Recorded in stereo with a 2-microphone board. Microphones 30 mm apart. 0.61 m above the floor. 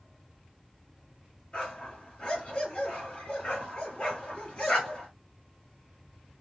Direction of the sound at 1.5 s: 40° left (ahead or behind).